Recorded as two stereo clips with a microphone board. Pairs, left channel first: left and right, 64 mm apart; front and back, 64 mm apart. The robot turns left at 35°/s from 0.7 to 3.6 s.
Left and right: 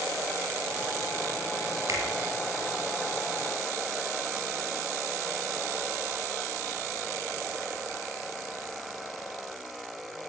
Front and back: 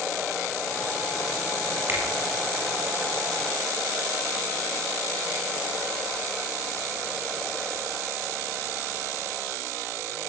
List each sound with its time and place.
1.9 s a finger snap: 125° right, 7 m; by 2.0 s 130° right, 7 m